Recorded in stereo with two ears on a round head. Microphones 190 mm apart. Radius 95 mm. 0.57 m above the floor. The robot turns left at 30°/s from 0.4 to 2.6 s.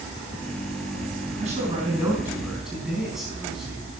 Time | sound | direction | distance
1.4 | a man speaking | 140° right | 4.5 m